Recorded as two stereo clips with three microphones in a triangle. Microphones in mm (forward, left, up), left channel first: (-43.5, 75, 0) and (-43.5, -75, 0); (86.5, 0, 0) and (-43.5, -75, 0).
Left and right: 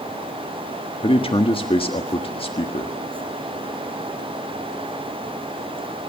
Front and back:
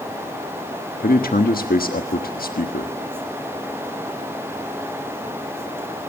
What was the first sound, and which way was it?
A man speaking, 40° left.